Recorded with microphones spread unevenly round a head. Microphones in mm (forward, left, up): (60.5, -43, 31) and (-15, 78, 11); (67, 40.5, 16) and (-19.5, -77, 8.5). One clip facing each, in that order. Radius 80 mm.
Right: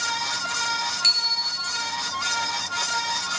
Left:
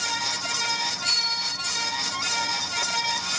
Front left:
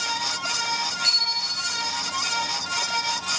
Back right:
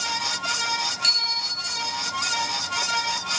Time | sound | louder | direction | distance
1.0 | a bicycle bell | even, even | 85° right | 7 m